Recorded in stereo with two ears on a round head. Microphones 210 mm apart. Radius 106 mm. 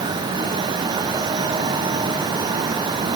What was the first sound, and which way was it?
Only background noise.